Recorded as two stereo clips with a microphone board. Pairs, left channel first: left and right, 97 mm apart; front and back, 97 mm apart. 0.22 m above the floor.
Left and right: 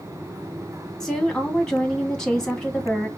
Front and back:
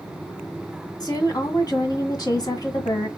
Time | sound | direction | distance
1.0 | a woman speaking | 10° left | 1.6 m